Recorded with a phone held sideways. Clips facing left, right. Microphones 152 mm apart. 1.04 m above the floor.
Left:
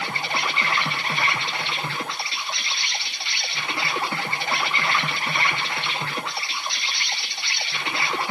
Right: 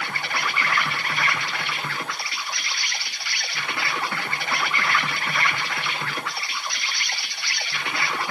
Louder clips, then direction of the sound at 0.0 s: Left 2 dB; 25° left (ahead or behind).